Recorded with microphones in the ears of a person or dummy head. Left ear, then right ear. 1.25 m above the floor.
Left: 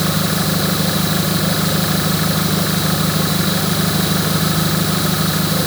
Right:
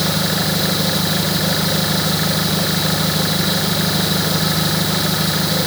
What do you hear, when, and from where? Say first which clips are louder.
0.0 s an engine running: right 1 dB; 20° right (ahead or behind)